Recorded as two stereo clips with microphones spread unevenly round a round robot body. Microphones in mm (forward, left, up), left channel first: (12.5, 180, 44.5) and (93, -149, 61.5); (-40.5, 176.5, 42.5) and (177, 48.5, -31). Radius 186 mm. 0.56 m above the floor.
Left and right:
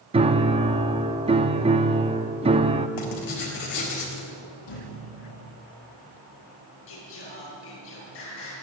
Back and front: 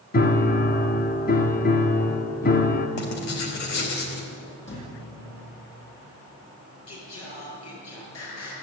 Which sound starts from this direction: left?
A thud, at 4.7 s.